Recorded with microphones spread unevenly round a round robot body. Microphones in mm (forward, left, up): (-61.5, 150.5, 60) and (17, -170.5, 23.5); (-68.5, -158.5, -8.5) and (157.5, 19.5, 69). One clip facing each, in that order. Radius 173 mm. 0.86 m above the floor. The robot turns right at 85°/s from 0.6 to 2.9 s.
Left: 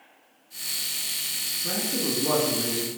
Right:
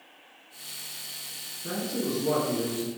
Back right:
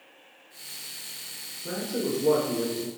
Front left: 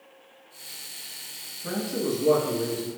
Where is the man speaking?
50° left, 1.9 m; by 2.9 s 155° left, 1.9 m.